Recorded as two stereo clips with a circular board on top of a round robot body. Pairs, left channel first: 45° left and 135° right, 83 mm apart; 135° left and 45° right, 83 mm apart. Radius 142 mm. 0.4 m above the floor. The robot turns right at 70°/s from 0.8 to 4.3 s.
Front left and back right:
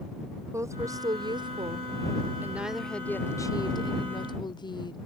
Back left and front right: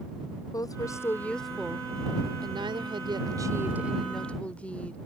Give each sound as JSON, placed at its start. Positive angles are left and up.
{"t": 0.5, "sound": "a woman speaking", "azimuth_deg": 175}